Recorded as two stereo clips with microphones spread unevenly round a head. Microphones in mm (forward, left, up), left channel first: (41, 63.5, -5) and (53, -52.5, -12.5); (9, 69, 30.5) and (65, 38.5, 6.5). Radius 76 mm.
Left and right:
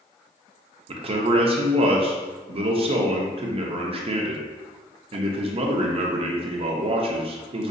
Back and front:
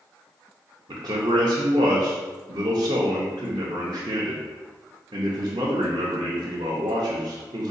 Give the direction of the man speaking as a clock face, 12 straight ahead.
2 o'clock.